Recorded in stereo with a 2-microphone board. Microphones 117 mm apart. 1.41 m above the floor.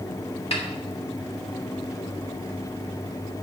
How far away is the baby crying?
No baby crying in this recording.